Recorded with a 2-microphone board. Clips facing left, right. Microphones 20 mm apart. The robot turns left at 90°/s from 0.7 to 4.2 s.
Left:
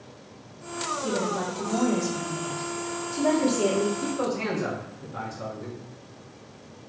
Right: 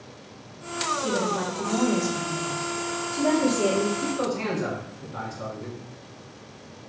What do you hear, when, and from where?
1.0 s a woman speaking: 20° right (ahead or behind), 0.9 m; by 3.9 s 20° left (ahead or behind), 0.9 m
4.0 s a man speaking: 10° left (ahead or behind), 1.2 m; by 5.8 s 5° right (ahead or behind), 1.2 m